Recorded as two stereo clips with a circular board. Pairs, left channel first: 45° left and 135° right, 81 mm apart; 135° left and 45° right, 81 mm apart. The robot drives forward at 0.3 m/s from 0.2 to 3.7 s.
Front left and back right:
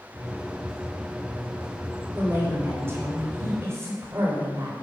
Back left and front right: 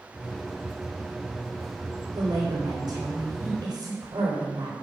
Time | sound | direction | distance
2.1 | a woman speaking | 75° right | 3.5 m